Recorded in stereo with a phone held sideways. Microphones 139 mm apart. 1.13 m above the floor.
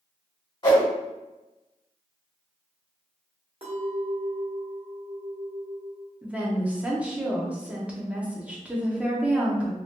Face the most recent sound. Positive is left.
turn(degrees=-10)  # may be behind; listen again after turning